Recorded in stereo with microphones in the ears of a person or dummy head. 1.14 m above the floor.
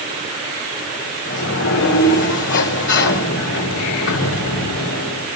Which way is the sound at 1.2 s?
70° left (ahead or behind).